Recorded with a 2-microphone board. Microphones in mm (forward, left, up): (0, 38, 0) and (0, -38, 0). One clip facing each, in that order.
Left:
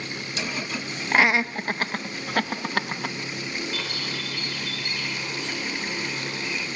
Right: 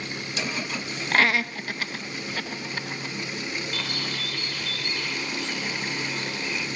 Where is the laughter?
10° left (ahead or behind), 1.2 m; by 3.2 s 70° left (ahead or behind), 2.5 m.